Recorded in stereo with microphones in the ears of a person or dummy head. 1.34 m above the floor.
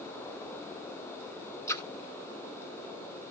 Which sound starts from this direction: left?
A splash, at 1.7 s.